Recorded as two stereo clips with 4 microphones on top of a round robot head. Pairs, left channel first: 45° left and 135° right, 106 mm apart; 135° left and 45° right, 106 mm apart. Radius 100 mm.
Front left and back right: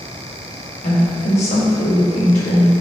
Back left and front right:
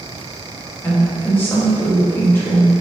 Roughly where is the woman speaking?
Ahead left.